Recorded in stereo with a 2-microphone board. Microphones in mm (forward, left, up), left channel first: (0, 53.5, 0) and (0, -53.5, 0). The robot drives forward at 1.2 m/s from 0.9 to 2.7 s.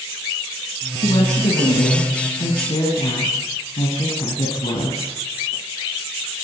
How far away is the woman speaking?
About 4.5 m.